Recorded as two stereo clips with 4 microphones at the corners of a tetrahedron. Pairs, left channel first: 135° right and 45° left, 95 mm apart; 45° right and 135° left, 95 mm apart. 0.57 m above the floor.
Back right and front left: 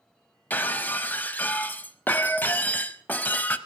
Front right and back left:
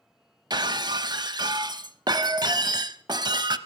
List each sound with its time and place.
0.5 s breaking glass: 160° left, 0.5 m